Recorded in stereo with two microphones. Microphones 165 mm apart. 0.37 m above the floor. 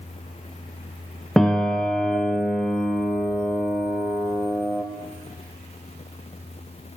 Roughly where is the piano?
Centre.